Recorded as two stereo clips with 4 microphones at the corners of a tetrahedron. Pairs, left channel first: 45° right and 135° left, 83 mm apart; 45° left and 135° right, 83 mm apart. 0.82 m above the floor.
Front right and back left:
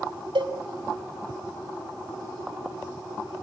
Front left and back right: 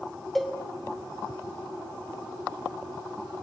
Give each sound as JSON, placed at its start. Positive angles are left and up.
{"t": 0.3, "sound": "a cowbell", "azimuth_deg": 135, "distance_m": 3.0}